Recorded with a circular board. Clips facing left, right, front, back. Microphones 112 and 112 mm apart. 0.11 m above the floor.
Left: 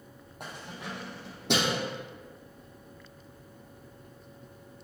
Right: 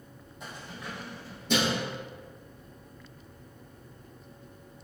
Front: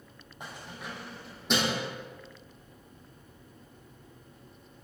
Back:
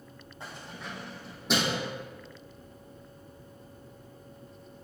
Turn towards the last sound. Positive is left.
turn(degrees=95)